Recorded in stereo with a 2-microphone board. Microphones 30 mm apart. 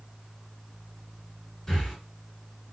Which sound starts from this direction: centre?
Breathing, at 1.7 s.